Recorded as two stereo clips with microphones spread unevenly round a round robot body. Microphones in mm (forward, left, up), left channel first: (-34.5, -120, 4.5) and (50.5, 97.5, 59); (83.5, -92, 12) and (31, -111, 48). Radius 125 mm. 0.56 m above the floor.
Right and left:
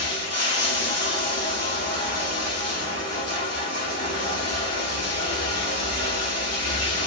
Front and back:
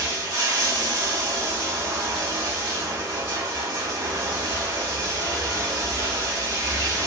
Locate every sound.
0.0 s running water: straight behind, 1.5 m